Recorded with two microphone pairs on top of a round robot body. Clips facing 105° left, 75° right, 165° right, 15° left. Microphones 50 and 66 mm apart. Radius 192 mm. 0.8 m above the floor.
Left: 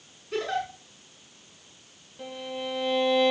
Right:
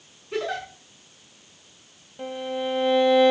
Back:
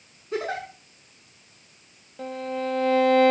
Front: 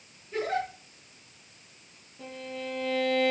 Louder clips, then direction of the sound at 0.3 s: Even, even; 155° right.